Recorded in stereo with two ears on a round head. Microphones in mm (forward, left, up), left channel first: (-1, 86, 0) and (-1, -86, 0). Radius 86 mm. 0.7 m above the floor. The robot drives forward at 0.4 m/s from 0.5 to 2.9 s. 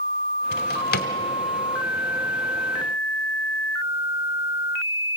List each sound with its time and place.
0.5 s a drawer: 60° left (ahead or behind), 1.4 m; by 1.1 s 55° left (ahead or behind), 1.5 m